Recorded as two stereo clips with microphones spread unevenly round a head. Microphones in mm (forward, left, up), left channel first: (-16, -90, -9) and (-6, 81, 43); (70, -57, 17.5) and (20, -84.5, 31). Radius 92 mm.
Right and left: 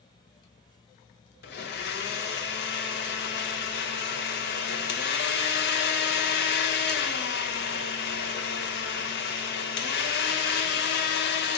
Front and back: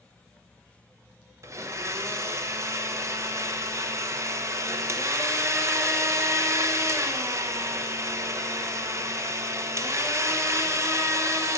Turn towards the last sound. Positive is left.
turn(degrees=-110)